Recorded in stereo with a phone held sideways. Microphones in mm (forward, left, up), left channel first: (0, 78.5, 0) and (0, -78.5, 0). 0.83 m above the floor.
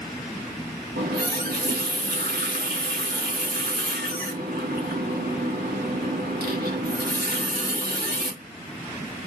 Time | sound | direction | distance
1.0 | a running tap | 75° right (ahead or behind) | 1.2 m